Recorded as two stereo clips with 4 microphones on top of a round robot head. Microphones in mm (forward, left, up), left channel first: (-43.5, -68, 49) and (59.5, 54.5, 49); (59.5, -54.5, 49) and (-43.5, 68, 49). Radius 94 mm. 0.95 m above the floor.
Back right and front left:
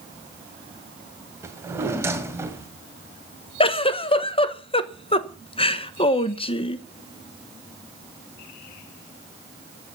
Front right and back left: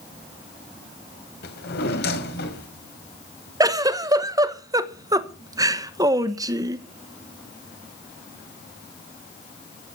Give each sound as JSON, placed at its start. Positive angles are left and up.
{"t": 1.4, "sound": "a drawer", "azimuth_deg": -25, "distance_m": 2.0}
{"t": 3.6, "sound": "a giggle", "azimuth_deg": -170, "distance_m": 1.2}